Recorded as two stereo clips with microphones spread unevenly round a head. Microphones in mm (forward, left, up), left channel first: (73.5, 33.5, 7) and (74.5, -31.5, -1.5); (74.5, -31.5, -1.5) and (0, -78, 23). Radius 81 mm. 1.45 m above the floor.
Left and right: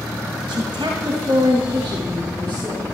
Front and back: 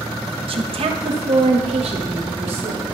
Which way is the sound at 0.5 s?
140° right.